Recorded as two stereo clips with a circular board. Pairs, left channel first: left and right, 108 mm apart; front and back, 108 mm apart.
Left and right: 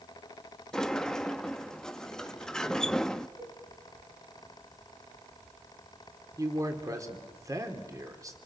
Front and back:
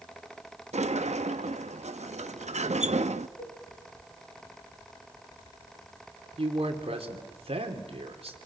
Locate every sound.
0.7 s a sliding door: 175° left, 0.8 m
3.4 s a cowbell: 20° right, 7 m
6.4 s a man speaking: 150° right, 3 m